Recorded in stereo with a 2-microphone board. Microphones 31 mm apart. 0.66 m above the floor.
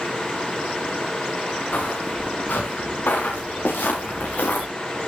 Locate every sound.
1.7 s footsteps: 85° left, 7 m